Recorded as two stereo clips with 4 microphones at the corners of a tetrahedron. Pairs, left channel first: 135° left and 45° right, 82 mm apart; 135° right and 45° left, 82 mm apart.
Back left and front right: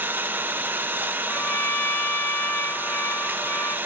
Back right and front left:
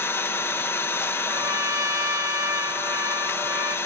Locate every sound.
0.0 s an engine running: 95° right, 0.7 m
1.2 s a trumpet: 85° left, 1.0 m